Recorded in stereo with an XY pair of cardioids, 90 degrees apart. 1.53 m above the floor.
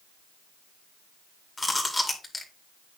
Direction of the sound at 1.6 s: 20° left.